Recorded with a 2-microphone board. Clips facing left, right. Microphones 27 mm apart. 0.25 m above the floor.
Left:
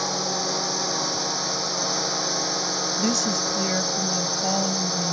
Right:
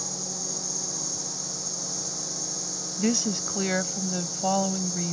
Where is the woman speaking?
10° right (ahead or behind).